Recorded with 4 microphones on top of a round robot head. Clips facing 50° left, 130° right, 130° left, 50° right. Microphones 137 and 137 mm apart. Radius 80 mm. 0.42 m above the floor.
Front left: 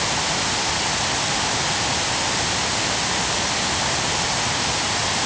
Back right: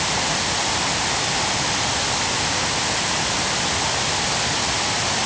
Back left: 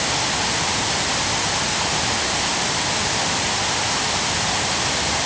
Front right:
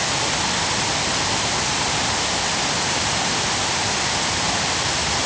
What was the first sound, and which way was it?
Only background noise.